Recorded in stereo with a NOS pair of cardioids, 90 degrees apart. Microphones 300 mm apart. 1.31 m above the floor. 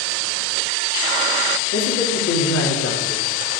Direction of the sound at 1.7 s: 55° left.